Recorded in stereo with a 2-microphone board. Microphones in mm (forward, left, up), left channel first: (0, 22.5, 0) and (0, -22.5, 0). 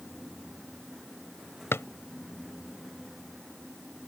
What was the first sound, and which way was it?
A drawer, 65° left (ahead or behind).